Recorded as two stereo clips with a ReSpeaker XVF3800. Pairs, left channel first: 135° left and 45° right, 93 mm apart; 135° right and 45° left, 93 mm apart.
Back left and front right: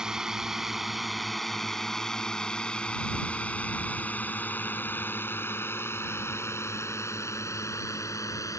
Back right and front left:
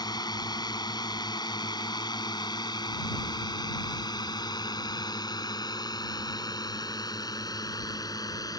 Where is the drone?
125° right; by 8.6 s 175° right.